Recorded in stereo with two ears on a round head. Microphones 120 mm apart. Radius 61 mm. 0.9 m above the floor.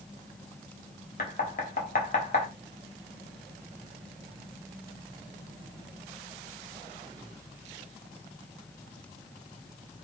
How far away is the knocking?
About 1.4 m.